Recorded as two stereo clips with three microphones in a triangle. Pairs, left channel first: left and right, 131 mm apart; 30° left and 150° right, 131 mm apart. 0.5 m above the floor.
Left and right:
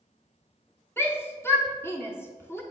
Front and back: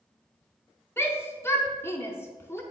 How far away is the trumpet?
I don't hear a trumpet.